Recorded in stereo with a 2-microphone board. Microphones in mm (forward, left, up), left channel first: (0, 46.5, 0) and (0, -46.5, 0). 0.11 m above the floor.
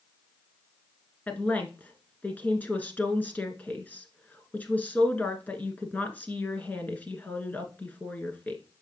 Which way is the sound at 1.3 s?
20° left (ahead or behind).